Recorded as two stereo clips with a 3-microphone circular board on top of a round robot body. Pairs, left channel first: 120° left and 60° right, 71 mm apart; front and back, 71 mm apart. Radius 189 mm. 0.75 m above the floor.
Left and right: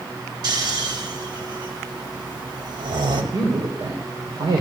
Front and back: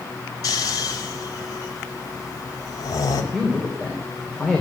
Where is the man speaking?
80° right, 3 m.